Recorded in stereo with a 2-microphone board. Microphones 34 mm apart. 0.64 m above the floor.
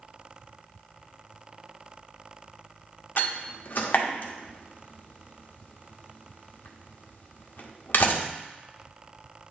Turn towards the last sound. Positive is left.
turn(degrees=65)  # may be behind; listen again after turning